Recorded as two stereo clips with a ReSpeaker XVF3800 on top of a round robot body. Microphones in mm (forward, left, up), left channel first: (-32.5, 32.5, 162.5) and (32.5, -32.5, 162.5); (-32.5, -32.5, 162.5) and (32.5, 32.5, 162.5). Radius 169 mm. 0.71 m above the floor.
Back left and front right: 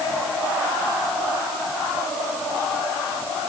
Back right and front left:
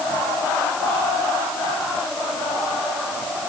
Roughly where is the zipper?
No zipper in this recording.